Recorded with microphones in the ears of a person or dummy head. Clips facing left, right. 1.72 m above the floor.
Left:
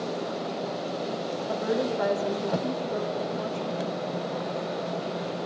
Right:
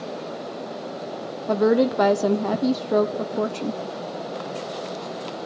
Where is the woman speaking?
80° right, 0.7 m.